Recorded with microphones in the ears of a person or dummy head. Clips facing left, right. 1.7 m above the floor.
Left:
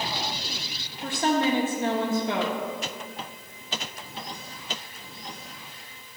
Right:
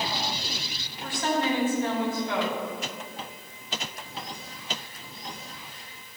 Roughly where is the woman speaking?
Centre.